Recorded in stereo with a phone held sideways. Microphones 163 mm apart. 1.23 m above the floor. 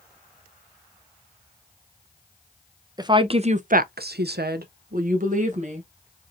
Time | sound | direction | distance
3.0 | a woman speaking | 25° right (ahead or behind) | 0.7 m